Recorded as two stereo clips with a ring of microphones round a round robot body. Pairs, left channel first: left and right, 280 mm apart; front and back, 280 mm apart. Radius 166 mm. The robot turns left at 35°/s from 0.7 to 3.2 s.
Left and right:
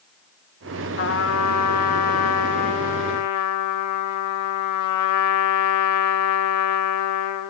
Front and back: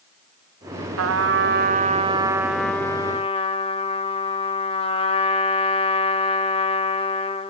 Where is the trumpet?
150° left, 1.3 m; by 7.5 s 70° left, 1.3 m.